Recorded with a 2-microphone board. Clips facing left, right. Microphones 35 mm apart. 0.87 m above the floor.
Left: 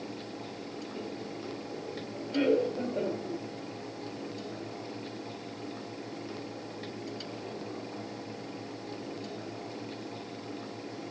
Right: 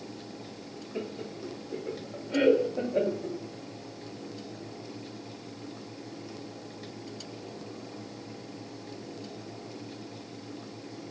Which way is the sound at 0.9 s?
30° right (ahead or behind).